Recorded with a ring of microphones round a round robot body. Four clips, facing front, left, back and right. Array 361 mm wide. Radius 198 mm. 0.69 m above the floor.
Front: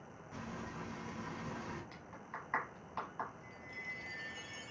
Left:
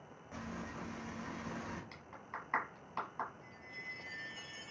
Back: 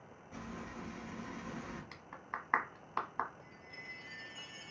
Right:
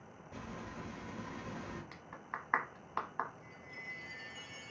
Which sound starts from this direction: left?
Frying, at 0.3 s.